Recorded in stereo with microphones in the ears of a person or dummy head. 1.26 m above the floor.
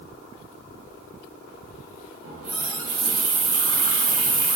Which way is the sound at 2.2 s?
70° right (ahead or behind).